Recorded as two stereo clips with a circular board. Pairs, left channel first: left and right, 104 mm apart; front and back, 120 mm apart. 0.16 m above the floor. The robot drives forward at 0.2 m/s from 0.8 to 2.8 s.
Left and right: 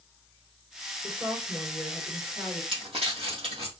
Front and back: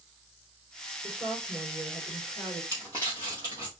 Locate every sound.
1.0 s a woman speaking: 140° right, 3 m; by 2.6 s 145° right, 3 m
2.7 s crumpling: 120° right, 3 m